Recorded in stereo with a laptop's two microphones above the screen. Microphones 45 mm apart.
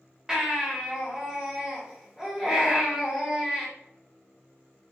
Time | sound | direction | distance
0.3 | a baby crying | 15° right (ahead or behind) | 1.8 m